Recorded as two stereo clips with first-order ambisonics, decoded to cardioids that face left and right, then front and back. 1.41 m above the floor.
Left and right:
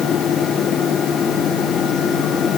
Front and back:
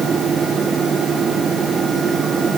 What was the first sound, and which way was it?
Only background noise.